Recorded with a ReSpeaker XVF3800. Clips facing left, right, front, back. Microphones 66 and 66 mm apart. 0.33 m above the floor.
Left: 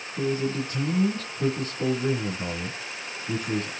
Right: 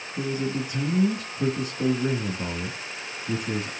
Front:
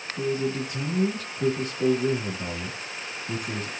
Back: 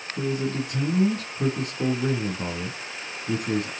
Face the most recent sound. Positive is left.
turn(degrees=-165)